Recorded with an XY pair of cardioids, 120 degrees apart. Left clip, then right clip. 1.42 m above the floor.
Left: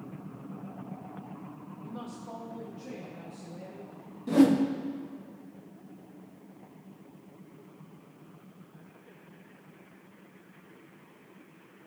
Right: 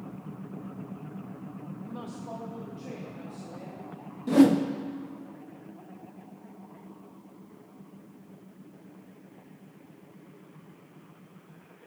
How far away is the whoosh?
About 0.6 m.